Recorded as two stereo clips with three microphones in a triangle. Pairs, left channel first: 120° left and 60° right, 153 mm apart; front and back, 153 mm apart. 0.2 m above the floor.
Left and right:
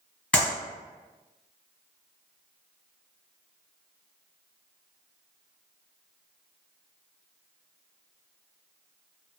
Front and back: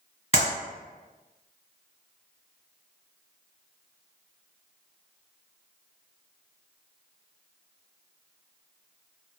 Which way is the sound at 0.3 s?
40° left.